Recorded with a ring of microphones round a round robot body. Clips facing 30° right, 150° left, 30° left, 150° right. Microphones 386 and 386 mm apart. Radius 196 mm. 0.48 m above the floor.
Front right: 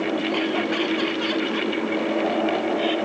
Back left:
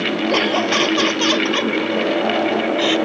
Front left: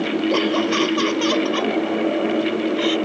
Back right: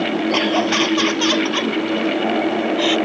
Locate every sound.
0.3 s laughter: 135° left